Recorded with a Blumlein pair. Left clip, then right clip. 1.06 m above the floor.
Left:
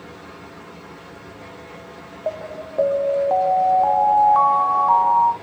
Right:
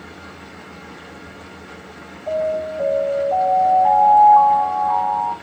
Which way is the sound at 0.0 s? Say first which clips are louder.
Right 1 dB; 25° right.